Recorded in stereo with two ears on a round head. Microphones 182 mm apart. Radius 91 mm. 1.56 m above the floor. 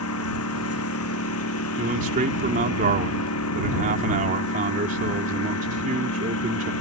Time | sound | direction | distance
0.0 | a lawn mower | 80° left | ?
1.8 | a man speaking | 40° right (ahead or behind) | ?